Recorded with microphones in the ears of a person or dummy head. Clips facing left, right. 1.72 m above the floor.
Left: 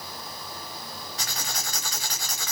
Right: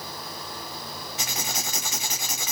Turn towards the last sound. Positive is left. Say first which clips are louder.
# right 3 dB
turn(degrees=-20)  # may be behind; listen again after turning